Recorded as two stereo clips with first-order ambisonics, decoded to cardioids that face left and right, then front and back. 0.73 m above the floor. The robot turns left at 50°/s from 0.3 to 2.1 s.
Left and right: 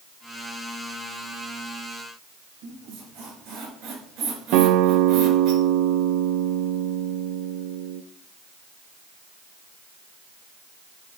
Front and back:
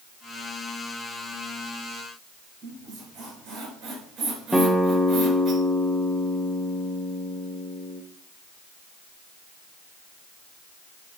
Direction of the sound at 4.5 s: 90° right.